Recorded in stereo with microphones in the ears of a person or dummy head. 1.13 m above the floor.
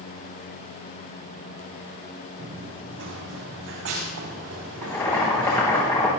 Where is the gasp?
No gasp in this recording.